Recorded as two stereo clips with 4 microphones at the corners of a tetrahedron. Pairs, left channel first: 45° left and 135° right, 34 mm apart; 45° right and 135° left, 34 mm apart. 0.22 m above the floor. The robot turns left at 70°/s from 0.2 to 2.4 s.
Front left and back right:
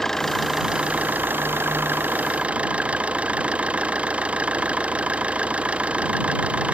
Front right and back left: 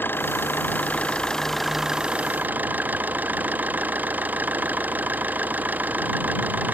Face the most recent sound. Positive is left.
turn(degrees=170)